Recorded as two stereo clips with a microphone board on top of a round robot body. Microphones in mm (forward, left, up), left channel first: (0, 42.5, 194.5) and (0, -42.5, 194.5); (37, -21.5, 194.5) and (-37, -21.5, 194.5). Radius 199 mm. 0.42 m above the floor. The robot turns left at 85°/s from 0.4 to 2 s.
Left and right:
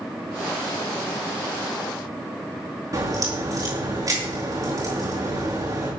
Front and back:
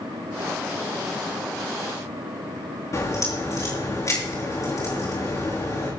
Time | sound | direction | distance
2.9 | a crack | 45° right | 7 m